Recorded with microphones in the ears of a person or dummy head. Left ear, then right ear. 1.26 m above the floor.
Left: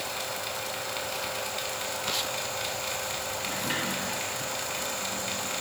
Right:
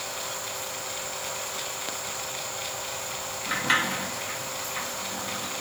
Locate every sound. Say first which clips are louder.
0.0 s a fan: left 1 dB; 20° left (ahead or behind), 5 m
3.5 s a sliding door: right 8 dB; 50° right (ahead or behind), 1.4 m